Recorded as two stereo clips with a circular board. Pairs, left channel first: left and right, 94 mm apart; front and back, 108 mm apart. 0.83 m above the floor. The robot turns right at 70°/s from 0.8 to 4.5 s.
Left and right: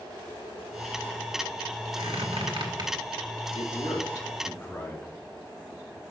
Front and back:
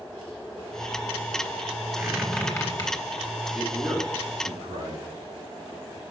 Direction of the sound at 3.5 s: 90° left.